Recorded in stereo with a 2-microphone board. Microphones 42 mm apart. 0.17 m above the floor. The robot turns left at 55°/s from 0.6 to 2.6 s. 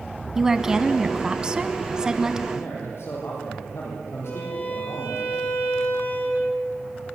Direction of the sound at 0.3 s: 10° right (ahead or behind).